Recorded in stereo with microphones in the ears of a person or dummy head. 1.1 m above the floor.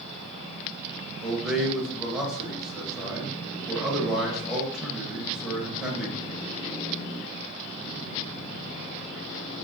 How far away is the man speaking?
About 0.7 m.